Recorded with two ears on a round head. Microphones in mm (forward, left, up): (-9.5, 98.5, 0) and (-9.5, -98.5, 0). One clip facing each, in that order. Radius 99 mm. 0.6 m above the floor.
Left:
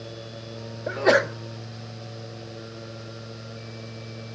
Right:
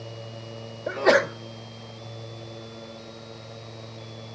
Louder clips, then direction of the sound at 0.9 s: Even; centre (ahead or behind).